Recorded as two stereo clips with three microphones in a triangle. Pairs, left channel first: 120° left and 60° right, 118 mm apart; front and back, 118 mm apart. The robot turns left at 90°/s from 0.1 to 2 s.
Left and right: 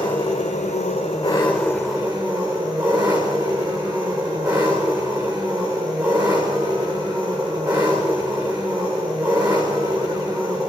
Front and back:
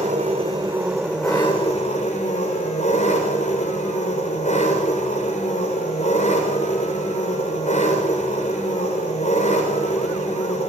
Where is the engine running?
170° left, 6 m; by 10.7 s 5° right, 6 m.